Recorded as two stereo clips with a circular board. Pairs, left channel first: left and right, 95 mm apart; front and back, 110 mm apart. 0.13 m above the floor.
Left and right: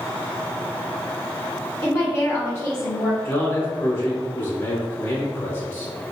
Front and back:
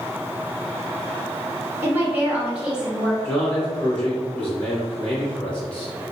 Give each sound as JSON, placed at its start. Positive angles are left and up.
{"t": 1.8, "sound": "a woman speaking", "azimuth_deg": 130, "distance_m": 1.9}
{"t": 3.2, "sound": "a man speaking", "azimuth_deg": 70, "distance_m": 1.6}